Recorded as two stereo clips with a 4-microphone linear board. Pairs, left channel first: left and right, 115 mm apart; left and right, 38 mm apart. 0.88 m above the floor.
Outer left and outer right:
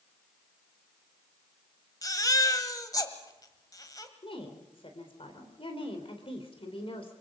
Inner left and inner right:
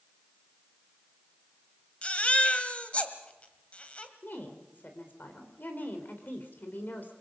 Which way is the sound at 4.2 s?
55° left (ahead or behind).